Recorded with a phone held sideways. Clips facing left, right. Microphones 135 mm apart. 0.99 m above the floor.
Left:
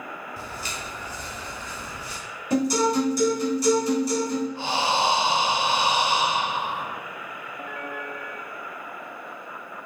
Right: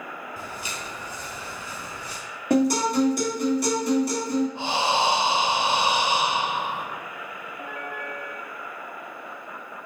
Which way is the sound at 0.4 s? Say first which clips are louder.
Even; 20° right (ahead or behind).